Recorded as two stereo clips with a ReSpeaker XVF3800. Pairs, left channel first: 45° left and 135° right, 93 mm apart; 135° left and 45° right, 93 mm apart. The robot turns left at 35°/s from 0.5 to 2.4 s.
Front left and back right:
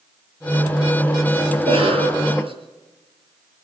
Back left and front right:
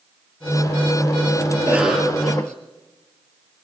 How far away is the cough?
About 5.5 m.